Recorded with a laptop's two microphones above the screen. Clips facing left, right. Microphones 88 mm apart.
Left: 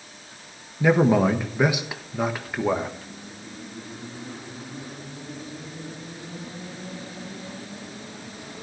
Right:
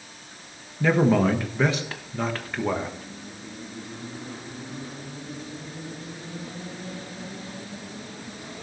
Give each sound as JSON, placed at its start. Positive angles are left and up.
{"t": 0.8, "sound": "a man speaking", "side_deg": 10, "distance_m": 1.3}